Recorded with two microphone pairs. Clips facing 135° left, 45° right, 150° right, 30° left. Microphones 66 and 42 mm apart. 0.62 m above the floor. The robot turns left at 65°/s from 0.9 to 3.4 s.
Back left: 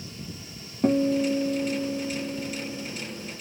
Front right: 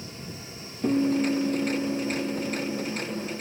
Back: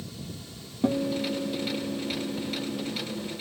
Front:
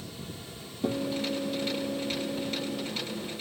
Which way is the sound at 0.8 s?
170° left.